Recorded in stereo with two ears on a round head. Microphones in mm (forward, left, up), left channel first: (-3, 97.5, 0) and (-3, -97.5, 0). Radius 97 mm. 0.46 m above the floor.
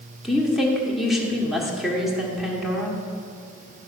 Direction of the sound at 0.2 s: Centre (ahead or behind).